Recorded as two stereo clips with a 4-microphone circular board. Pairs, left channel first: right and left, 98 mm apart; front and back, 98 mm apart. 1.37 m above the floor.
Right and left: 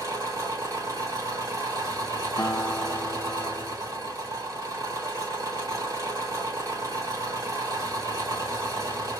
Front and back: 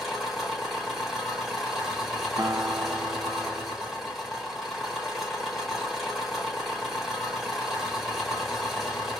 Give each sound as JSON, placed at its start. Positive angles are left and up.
{"t": 0.0, "sound": "an engine running", "azimuth_deg": 95, "distance_m": 1.2}
{"t": 2.4, "sound": "a guitar", "azimuth_deg": -135, "distance_m": 0.6}